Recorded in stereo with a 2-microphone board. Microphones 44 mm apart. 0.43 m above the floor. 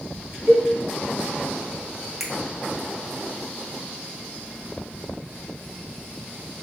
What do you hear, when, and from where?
0.5 s a cowbell: 45° right (ahead or behind), 1.7 m
2.2 s a finger snap: 5° right (ahead or behind), 0.7 m